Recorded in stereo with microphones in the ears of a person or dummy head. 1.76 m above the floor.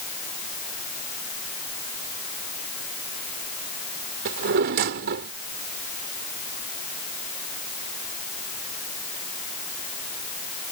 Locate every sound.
4.2 s a drawer: 60° right (ahead or behind)